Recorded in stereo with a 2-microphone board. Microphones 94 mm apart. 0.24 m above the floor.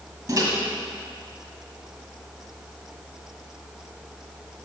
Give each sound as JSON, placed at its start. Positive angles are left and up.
{"t": 0.3, "sound": "a microwave", "side_deg": -40, "distance_m": 1.7}